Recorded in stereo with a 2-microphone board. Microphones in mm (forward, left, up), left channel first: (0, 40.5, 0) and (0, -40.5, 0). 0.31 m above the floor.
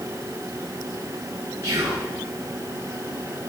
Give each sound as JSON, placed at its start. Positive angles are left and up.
{"t": 1.6, "sound": "whispering", "side_deg": -35, "distance_m": 1.9}